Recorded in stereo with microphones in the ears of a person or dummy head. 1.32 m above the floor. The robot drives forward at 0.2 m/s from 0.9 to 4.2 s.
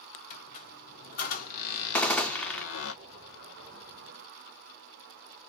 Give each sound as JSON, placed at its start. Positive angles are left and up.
{"t": 0.3, "sound": "a squeak", "side_deg": 50, "distance_m": 0.9}
{"t": 1.9, "sound": "a gunshot", "side_deg": 0, "distance_m": 0.5}